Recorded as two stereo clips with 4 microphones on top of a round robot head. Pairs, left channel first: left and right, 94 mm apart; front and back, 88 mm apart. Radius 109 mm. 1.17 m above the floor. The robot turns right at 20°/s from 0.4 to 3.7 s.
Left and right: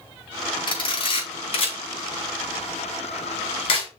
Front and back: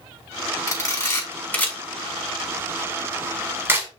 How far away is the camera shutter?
About 4 m.